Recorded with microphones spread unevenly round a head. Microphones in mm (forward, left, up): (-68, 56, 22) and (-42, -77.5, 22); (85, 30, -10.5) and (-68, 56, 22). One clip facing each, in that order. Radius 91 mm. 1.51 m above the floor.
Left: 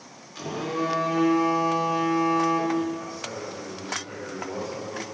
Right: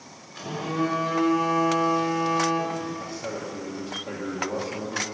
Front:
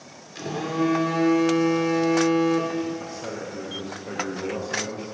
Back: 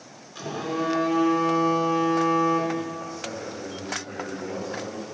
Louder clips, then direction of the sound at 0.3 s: Right 1 dB, front 3 dB; 70° left.